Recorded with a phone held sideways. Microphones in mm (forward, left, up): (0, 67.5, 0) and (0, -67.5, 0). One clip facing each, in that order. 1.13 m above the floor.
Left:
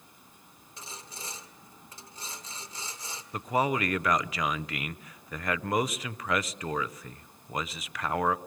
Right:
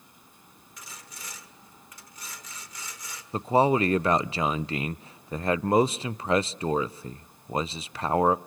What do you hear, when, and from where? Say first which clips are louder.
0.8 s sawing: left 3 dB; 30° left (ahead or behind), 1.8 m
3.3 s a man speaking: right 6 dB; 30° right (ahead or behind), 0.5 m